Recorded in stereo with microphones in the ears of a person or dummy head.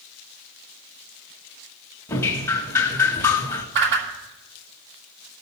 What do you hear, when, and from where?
2.1 s dripping: 20° left (ahead or behind), 1.8 m
3.8 s a whoosh: 65° right (ahead or behind), 2.5 m